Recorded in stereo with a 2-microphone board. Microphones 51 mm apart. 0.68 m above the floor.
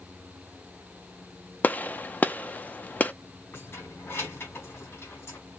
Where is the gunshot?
35° left (ahead or behind), 0.5 m.